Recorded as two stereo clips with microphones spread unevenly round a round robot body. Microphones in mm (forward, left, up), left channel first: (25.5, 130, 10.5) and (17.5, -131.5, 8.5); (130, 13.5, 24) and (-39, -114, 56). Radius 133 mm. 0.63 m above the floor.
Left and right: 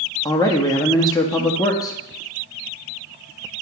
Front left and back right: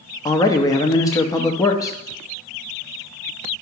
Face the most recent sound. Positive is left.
turn(degrees=30)